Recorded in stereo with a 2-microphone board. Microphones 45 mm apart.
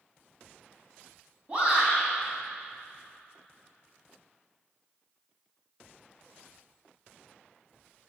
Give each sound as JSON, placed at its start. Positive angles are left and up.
{"t": 1.5, "sound": "a shout", "side_deg": -25, "distance_m": 1.6}